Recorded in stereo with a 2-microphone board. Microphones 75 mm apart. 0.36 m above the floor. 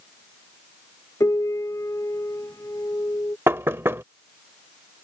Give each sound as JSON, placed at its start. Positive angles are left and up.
{"t": 1.2, "sound": "a piano", "side_deg": 45}
{"t": 3.5, "sound": "knocking", "side_deg": -30}